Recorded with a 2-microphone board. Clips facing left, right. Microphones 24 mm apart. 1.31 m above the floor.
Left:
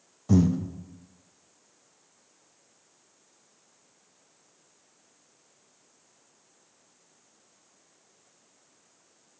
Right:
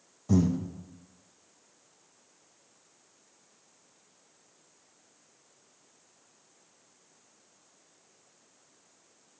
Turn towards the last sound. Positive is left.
turn(degrees=20)  # may be behind; listen again after turning